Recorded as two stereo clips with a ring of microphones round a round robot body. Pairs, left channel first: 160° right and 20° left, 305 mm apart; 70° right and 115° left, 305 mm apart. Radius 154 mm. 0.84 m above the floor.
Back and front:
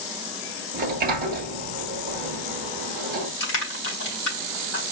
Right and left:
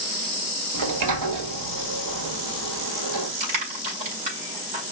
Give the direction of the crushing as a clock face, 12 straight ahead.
7 o'clock.